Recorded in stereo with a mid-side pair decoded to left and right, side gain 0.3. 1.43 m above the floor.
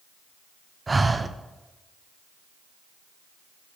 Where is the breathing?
30° right, 0.5 m.